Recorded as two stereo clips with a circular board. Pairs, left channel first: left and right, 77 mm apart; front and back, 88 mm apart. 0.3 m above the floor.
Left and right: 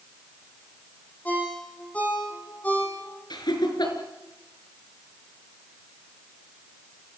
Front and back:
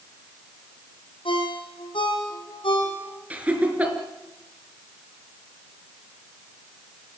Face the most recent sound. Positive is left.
turn(degrees=110)